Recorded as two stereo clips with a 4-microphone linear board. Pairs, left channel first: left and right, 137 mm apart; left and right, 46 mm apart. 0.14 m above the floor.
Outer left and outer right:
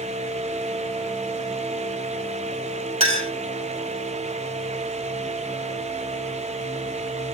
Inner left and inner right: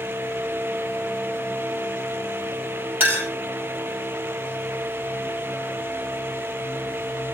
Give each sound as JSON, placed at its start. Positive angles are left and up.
{"t": 3.0, "sound": "a clink", "side_deg": -45, "distance_m": 2.5}